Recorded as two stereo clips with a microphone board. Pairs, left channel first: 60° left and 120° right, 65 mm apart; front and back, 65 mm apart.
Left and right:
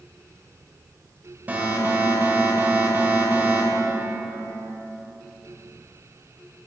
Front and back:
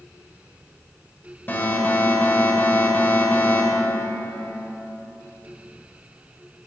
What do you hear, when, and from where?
1.5 s an alarm: 60° right, 1.5 m